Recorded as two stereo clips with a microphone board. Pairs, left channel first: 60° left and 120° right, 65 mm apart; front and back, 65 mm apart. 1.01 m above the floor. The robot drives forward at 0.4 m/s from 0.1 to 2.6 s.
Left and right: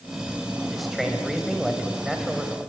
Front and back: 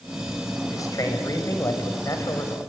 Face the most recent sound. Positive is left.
turn(degrees=-35)